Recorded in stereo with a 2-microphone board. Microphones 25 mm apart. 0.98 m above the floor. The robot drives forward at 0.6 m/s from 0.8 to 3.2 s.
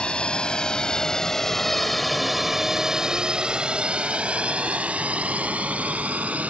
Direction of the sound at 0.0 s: 40° left (ahead or behind).